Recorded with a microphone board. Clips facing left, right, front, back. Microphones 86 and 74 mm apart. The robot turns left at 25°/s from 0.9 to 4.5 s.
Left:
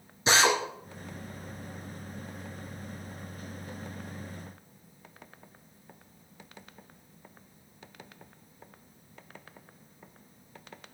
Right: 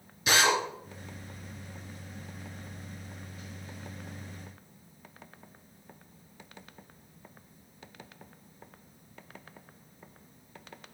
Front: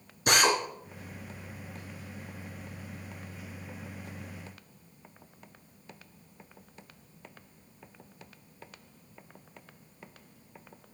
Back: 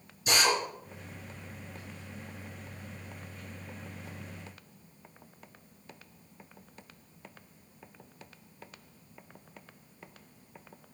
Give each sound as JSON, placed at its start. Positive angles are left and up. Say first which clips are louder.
{"t": 0.3, "sound": "a drill", "louder": "left 1 dB, front 3 dB", "azimuth_deg": 30, "distance_m": 2.5}